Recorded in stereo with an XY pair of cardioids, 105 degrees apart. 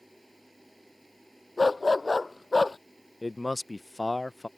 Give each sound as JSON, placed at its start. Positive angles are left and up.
{"t": 0.0, "sound": "a machine running", "azimuth_deg": 0}
{"t": 1.6, "sound": "a dog barking", "azimuth_deg": 20}
{"t": 3.2, "sound": "a man speaking", "azimuth_deg": 15}